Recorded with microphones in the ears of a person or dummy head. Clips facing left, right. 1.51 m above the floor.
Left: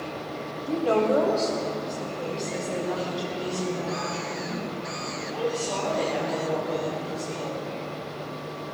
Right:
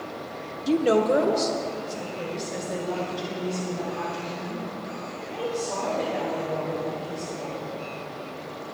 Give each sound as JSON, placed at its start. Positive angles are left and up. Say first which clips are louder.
{"t": 0.7, "sound": "a woman speaking", "louder": "right 2 dB", "side_deg": -50, "distance_m": 0.9}